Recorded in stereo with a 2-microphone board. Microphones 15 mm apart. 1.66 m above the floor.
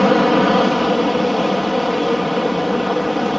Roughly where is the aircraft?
Centre.